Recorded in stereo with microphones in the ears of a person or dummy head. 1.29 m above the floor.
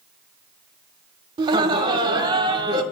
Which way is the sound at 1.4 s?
25° right (ahead or behind).